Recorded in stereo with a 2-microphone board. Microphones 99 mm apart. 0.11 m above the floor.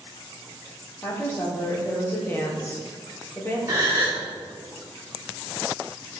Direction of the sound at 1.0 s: 20° left (ahead or behind).